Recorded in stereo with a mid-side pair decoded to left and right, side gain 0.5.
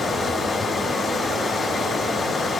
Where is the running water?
30° left, 3.5 m.